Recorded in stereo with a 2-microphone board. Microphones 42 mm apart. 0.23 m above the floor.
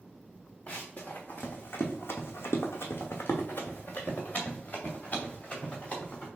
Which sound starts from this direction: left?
Running footsteps, at 0.7 s.